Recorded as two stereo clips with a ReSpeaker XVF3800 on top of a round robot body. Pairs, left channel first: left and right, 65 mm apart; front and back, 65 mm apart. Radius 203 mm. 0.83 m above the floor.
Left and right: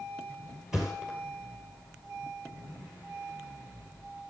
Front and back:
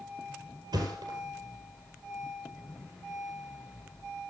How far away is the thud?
About 1.7 m.